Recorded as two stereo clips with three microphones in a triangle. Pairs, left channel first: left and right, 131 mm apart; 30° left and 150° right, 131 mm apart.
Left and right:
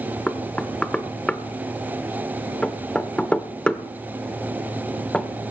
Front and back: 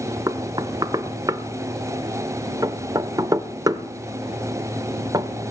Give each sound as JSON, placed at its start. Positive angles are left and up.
{"t": 0.3, "sound": "knocking", "azimuth_deg": 170, "distance_m": 0.8}